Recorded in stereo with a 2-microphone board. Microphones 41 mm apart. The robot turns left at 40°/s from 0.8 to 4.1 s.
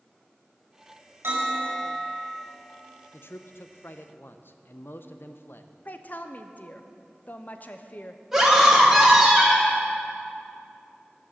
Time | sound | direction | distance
1.2 | a bell | 100° right | 5 m
3.1 | a man speaking | 110° left | 0.7 m
5.8 | a woman speaking | 40° left (ahead or behind) | 0.7 m
8.3 | a scream | 5° right (ahead or behind) | 2.5 m